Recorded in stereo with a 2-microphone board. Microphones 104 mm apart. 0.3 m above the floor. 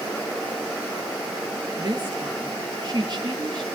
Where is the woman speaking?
40° right (ahead or behind), 5 m.